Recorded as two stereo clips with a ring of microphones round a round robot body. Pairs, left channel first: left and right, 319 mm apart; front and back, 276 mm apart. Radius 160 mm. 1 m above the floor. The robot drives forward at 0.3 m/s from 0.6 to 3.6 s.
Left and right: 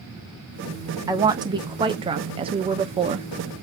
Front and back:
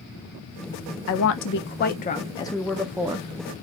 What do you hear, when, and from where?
1.1 s a woman speaking: 15° right, 0.7 m; by 3.3 s 135° right, 0.5 m